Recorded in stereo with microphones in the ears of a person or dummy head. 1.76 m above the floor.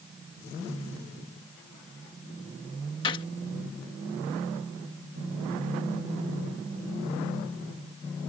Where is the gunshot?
25° left (ahead or behind).